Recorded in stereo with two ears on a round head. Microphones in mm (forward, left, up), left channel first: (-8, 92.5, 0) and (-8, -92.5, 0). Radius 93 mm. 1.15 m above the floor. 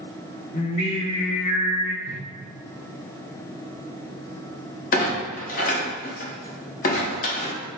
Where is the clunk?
40° left (ahead or behind), 0.8 m.